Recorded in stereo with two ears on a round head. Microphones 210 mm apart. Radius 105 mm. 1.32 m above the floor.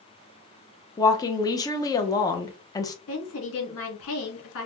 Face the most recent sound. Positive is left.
turn(degrees=65)  # may be behind; listen again after turning